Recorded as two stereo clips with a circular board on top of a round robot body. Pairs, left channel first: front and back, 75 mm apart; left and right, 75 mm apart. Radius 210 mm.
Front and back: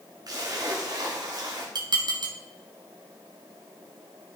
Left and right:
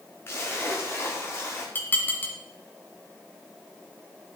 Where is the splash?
145° left, 1.2 m.